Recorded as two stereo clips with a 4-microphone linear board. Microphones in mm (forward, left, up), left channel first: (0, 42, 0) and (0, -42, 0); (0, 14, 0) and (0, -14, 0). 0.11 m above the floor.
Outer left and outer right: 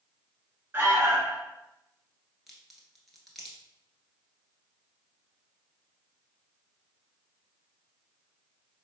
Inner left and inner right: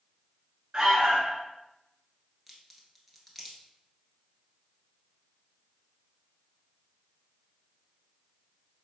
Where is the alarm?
25° right (ahead or behind), 1.6 m.